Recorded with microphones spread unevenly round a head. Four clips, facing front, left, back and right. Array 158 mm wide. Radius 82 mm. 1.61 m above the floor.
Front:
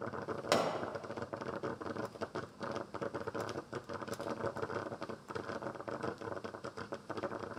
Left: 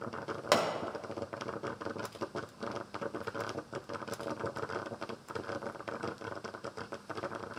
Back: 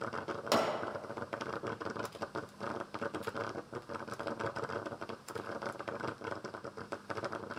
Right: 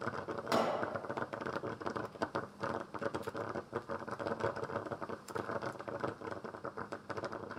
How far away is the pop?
About 1.0 m.